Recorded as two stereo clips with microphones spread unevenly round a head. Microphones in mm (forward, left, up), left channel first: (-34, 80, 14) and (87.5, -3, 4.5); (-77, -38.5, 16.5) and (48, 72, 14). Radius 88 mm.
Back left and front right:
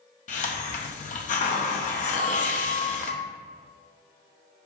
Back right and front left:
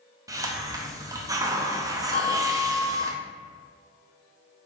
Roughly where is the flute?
Right.